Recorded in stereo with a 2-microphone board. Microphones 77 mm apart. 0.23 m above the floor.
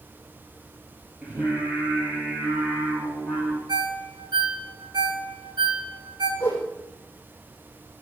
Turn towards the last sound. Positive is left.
turn(degrees=30)  # may be behind; listen again after turning